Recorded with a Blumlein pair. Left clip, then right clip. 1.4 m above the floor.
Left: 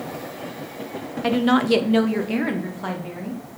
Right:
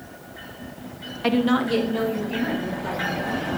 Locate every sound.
1.2 s a woman speaking: 5° right, 0.7 m; by 3.4 s 65° left, 2.5 m